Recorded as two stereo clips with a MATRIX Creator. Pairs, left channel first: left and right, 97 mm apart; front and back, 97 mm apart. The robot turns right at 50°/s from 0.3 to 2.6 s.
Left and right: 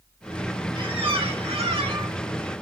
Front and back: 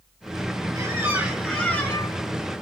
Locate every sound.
0.8 s a squeak: 125° right, 0.7 m; by 2.1 s 55° right, 0.7 m